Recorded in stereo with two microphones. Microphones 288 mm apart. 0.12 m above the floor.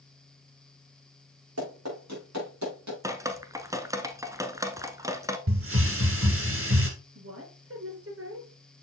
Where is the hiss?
50° right (ahead or behind), 1.2 m.